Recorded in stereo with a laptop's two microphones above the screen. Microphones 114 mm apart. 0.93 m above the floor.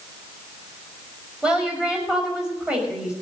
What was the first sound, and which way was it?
A woman speaking, 10° right (ahead or behind).